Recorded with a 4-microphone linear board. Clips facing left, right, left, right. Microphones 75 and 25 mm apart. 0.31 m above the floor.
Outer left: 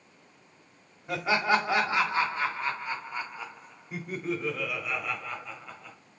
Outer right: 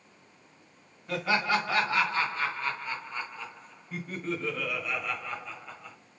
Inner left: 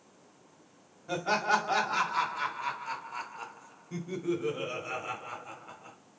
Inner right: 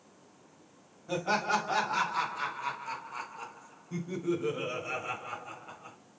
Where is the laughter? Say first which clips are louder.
Outer left 2 dB, inner left 1 dB; 20° left (ahead or behind), 1.8 m; by 6.0 s centre (ahead or behind), 1.8 m.